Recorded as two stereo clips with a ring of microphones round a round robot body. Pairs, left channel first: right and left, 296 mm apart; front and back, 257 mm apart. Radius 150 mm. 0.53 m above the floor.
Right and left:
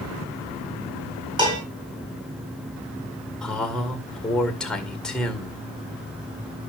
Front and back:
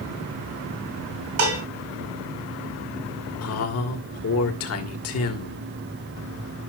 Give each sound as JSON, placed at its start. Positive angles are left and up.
{"t": 1.4, "sound": "dishes clattering", "azimuth_deg": 165, "distance_m": 4.5}
{"t": 3.4, "sound": "a man speaking", "azimuth_deg": 0, "distance_m": 2.0}